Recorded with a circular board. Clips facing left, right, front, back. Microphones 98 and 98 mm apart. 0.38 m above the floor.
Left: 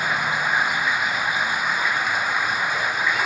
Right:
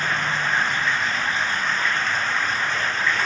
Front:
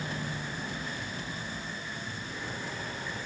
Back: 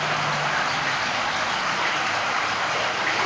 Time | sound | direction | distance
0.0 | running water | 170° left | ?